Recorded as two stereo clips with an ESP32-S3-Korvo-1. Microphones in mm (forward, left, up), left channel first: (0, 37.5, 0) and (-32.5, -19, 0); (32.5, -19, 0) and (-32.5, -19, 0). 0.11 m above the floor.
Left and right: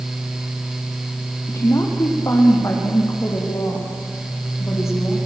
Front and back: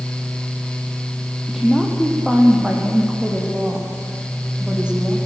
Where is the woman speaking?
95° left, 3.5 m; by 5.2 s 105° left, 6.5 m.